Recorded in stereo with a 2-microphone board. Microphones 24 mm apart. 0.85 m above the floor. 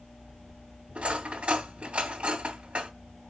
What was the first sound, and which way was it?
Cutlery clinking, 60° right (ahead or behind).